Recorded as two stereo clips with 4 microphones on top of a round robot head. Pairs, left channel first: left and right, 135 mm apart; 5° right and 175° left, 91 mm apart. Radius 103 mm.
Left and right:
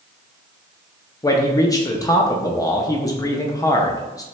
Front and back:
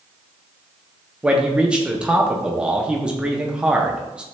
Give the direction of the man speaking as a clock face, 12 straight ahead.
8 o'clock.